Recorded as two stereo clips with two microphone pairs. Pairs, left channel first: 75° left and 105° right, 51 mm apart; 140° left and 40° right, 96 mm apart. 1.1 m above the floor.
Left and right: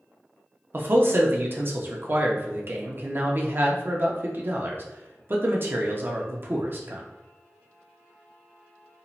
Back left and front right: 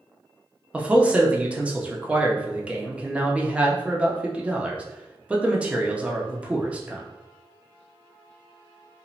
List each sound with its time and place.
0.7 s a man speaking: 110° right, 0.5 m